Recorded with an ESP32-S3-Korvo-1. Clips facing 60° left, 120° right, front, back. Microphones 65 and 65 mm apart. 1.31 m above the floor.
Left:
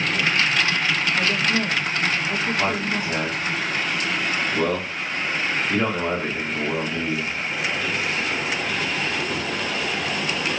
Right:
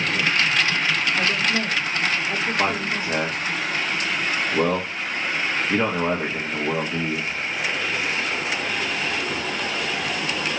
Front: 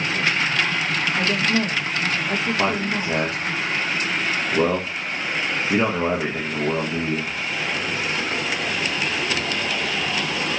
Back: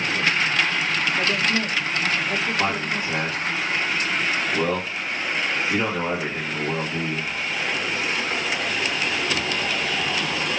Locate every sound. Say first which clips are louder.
1.2 s a woman speaking: even, front 4 dB; 25° right, 1.9 m
2.6 s a man speaking: even, front 2 dB; 65° right, 1.0 m